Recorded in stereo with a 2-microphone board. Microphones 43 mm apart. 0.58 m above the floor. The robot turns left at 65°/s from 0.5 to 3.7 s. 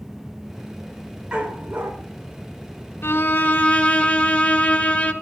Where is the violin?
80° left, 1.4 m; by 5.1 s 40° left, 1.4 m.